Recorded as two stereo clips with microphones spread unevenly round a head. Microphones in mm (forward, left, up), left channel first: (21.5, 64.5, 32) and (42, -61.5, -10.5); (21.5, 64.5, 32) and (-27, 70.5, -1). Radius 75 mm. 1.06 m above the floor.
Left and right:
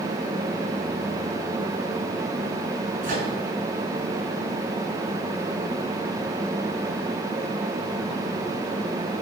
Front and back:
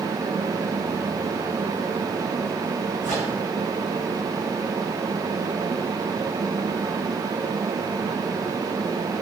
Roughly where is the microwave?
Behind right.